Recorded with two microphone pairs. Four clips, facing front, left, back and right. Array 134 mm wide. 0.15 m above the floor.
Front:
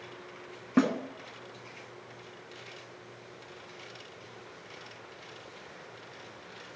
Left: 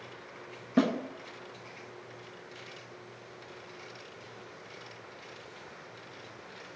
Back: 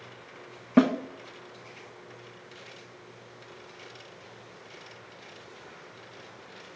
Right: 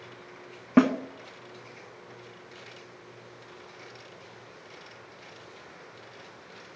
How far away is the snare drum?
About 0.8 m.